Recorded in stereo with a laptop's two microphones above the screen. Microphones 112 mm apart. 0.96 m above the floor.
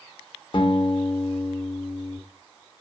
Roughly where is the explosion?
I don't hear an explosion.